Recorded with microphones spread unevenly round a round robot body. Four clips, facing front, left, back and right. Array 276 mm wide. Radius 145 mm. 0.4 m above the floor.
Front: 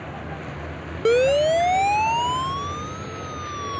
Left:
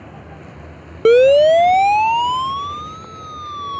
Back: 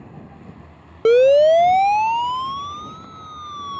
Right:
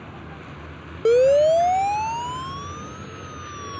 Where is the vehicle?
5° right; by 3.8 s 20° right.